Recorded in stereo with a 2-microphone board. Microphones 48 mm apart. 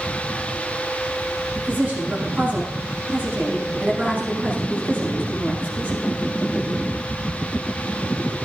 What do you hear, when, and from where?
1.6 s a woman speaking: 40° right (ahead or behind), 8 m